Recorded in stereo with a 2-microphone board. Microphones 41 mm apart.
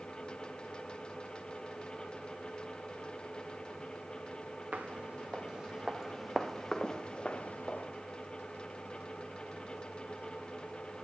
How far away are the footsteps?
About 1.3 m.